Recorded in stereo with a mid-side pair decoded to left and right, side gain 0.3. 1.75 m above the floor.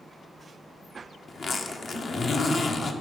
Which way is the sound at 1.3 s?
60° left.